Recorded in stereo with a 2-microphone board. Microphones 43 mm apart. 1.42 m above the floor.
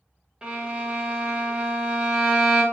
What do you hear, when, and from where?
0.4 s a violin: 20° right (ahead or behind), 0.6 m